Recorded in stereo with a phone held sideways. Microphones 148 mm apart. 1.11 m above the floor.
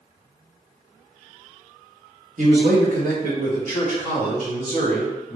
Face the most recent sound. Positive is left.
turn(degrees=-55)  # may be behind; listen again after turning